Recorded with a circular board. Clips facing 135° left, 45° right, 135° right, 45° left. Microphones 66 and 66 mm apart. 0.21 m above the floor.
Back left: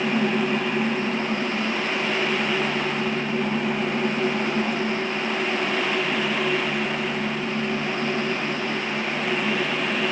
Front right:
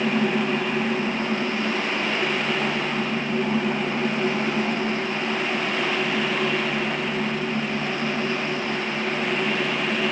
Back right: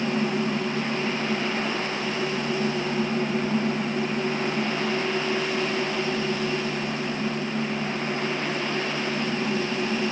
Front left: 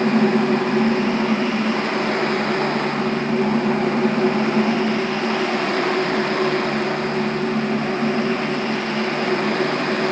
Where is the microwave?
I don't hear a microwave.